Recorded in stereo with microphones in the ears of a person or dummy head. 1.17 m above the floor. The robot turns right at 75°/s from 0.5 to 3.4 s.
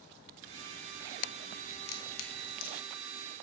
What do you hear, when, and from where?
1.7 s a crack: 35° left (ahead or behind), 0.9 m; by 2.8 s 65° left (ahead or behind), 0.9 m